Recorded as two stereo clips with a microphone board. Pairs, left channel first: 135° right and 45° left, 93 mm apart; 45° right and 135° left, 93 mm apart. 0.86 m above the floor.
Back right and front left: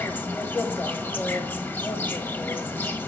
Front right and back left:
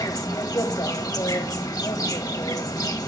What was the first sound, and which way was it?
An insect, 75° right.